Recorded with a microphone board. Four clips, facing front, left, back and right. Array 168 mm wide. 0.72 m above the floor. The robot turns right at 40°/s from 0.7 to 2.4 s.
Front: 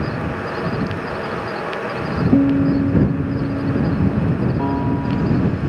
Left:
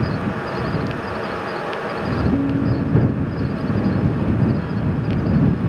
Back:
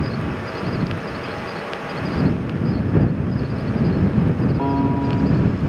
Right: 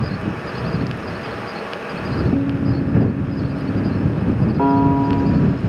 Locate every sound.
2.3 s a guitar: straight ahead
4.6 s a piano: 95° right